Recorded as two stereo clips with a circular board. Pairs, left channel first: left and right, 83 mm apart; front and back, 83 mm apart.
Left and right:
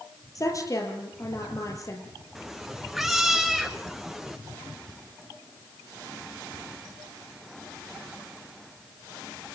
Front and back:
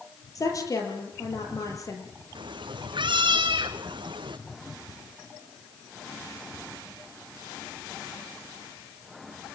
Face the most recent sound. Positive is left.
turn(degrees=180)